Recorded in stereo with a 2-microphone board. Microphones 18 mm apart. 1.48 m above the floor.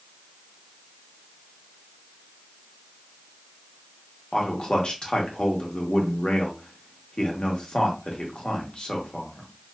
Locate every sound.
4.3 s a man speaking: 65° left (ahead or behind), 1.2 m